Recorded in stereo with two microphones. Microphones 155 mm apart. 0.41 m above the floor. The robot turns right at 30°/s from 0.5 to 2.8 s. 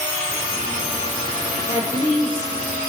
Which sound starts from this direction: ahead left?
A woman speaking, at 1.7 s.